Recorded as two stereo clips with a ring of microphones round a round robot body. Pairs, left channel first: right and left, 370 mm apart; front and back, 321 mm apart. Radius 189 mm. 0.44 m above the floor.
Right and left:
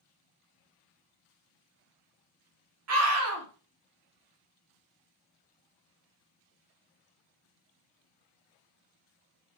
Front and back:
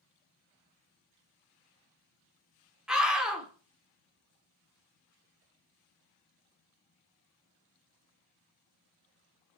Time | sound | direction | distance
2.9 | a scream | 95° left | 0.9 m